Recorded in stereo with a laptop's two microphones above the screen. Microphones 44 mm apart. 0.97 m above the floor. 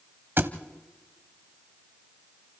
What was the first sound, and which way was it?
A thud, 50° right (ahead or behind).